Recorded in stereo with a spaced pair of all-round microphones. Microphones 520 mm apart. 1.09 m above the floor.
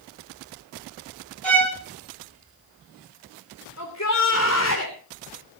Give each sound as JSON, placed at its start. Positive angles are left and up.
{"t": 1.4, "sound": "a violin", "side_deg": -55, "distance_m": 3.0}
{"t": 3.8, "sound": "a shout", "side_deg": 30, "distance_m": 3.0}